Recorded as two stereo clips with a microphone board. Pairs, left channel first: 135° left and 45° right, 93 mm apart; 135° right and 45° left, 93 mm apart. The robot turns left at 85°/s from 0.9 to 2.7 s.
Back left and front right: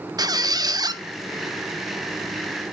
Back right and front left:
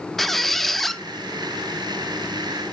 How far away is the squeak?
About 0.5 m.